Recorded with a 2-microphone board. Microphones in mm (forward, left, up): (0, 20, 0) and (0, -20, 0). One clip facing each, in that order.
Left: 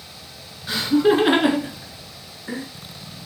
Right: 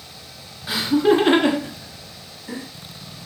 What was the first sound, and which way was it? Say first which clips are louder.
Laughter: even; 10° right (ahead or behind).